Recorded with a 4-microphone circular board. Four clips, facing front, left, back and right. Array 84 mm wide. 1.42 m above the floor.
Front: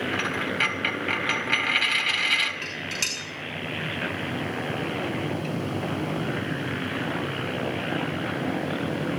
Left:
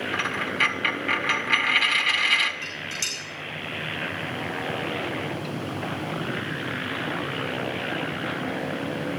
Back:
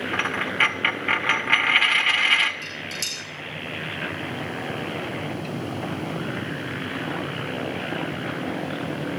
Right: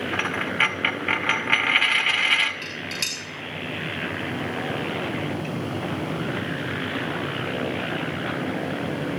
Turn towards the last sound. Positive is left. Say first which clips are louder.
# right 2 dB, front 1 dB
turn(degrees=-25)